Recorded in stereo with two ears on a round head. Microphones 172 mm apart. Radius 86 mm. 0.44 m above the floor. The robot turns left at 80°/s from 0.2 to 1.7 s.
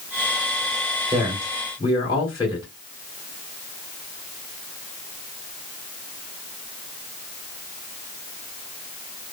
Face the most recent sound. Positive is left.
turn(degrees=150)